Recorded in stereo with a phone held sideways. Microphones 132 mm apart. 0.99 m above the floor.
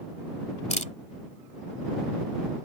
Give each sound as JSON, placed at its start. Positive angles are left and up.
{"t": 0.7, "sound": "a camera shutter", "side_deg": 60}